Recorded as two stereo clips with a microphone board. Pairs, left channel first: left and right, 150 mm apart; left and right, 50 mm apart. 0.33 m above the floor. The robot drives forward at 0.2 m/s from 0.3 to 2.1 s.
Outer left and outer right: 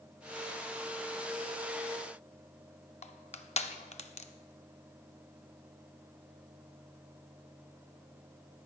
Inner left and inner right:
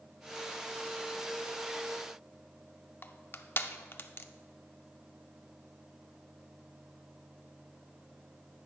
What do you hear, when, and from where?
3.0 s crushing: 50° left (ahead or behind), 0.5 m